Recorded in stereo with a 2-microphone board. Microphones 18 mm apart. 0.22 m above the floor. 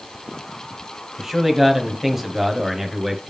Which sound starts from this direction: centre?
A man speaking, at 1.2 s.